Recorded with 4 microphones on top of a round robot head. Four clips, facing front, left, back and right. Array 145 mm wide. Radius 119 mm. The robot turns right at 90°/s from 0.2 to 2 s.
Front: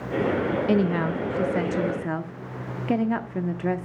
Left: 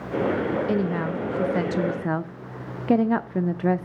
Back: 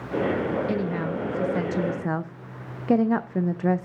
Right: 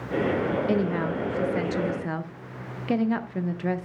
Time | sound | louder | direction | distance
0.7 | a woman speaking | even, front 4 dB | 5° right | 0.5 m